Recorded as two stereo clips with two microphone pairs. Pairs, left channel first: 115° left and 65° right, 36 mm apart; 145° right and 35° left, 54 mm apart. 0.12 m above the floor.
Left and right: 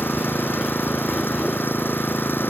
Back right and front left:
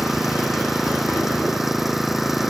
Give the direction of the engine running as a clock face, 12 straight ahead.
8 o'clock.